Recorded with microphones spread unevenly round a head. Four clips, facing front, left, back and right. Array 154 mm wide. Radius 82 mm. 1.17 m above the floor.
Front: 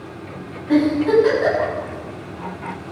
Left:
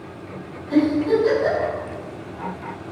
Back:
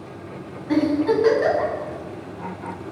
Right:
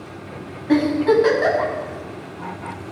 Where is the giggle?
80° right, 8.5 m.